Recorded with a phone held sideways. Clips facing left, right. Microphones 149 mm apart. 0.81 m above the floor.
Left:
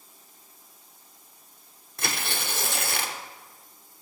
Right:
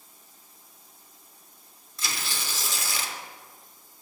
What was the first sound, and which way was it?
Tearing paper, 55° left (ahead or behind).